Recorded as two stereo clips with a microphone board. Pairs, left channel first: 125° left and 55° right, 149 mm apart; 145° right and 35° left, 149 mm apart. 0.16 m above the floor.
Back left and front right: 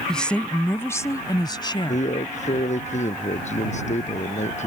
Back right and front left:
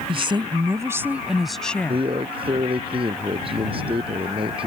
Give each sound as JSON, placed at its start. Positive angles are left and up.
{"t": 0.1, "sound": "a woman speaking", "azimuth_deg": 40}
{"t": 1.9, "sound": "a man speaking", "azimuth_deg": 85}